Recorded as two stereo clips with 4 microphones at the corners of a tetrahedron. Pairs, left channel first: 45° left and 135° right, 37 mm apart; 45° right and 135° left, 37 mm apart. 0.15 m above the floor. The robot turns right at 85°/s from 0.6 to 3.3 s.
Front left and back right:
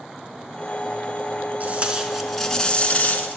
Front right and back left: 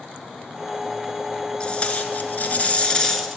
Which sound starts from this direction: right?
Tape being pulled, at 1.6 s.